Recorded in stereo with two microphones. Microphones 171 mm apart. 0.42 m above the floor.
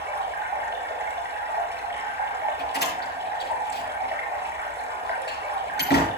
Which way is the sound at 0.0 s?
15° right (ahead or behind).